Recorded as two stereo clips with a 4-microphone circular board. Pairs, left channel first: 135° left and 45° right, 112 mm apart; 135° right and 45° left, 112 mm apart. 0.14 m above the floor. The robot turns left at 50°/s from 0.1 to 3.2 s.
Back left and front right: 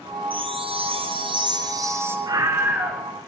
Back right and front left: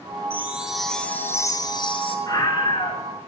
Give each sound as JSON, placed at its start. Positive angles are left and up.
{"t": 0.3, "sound": "a chime", "azimuth_deg": -20, "distance_m": 2.0}
{"t": 2.3, "sound": "a scream", "azimuth_deg": -90, "distance_m": 1.8}